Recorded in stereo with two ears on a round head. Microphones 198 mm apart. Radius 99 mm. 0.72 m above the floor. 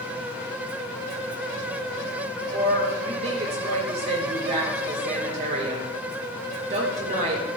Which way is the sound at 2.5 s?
35° right (ahead or behind).